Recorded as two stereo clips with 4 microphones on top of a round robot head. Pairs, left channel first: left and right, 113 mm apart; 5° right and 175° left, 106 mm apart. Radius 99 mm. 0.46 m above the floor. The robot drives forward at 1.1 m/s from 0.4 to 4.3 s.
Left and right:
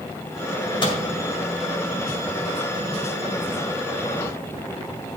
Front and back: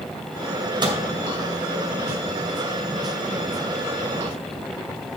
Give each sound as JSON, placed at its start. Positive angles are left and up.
{"t": 0.8, "sound": "a microwave", "azimuth_deg": 130, "distance_m": 2.0}